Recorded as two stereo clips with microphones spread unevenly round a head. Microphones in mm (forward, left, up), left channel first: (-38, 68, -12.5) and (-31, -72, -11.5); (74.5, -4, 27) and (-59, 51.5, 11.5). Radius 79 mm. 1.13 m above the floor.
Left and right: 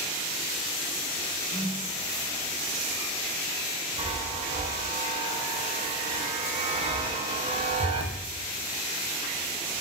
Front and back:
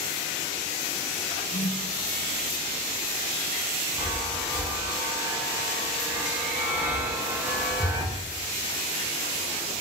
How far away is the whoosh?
About 0.9 m.